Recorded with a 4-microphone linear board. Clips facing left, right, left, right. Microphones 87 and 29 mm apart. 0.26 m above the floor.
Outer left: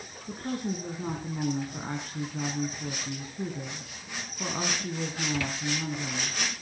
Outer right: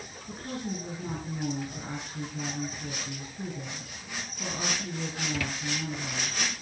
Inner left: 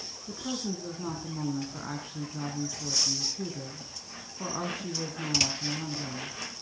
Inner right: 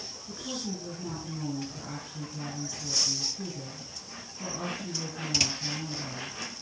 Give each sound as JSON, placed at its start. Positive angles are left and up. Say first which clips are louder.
{"t": 0.3, "sound": "a woman speaking", "louder": "outer left 3 dB, inner left 2 dB", "side_deg": 55, "distance_m": 3.0}